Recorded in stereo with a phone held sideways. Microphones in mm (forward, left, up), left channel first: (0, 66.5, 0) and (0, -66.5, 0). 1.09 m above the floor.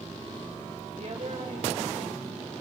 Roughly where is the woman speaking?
Right.